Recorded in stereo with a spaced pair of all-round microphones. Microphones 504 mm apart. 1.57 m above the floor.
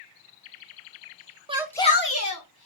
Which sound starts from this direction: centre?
A shout, at 1.5 s.